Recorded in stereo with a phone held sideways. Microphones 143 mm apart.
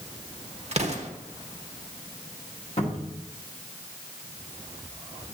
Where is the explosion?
50° right (ahead or behind), 1.1 m.